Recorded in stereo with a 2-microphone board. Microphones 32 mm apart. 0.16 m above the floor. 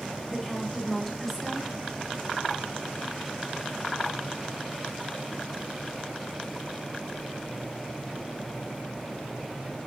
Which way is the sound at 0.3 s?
Centre (ahead or behind).